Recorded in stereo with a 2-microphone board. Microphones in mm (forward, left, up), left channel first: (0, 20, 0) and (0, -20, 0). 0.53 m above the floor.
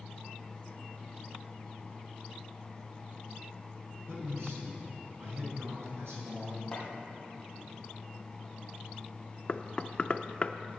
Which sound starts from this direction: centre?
Chopping, at 6.7 s.